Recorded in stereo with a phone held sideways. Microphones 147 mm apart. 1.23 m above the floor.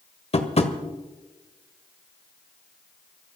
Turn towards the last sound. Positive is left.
turn(degrees=45)  # may be behind; listen again after turning